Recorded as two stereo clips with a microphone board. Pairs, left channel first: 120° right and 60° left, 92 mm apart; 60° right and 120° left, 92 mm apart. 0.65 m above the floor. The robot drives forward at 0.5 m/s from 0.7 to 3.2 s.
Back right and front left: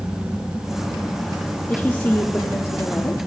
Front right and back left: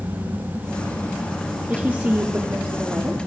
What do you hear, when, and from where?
1.7 s a woman speaking: 175° right, 1.1 m; by 3.2 s straight behind, 1.7 m